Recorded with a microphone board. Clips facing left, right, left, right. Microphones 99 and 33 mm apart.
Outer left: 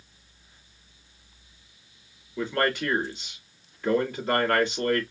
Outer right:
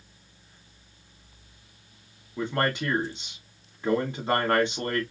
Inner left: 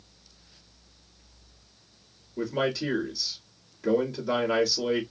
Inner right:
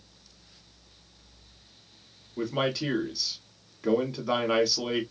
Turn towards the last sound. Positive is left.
turn(degrees=-25)  # may be behind; listen again after turning